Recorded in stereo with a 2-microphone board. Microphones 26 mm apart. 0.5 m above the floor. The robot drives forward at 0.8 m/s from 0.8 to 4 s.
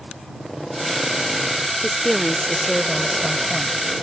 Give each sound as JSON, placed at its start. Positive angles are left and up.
{"t": 1.8, "sound": "a woman speaking", "side_deg": 15}